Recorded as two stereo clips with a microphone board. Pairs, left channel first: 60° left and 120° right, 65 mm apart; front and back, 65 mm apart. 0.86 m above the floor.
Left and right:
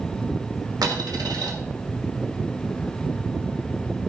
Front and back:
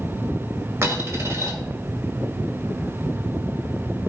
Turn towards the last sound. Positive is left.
turn(degrees=-130)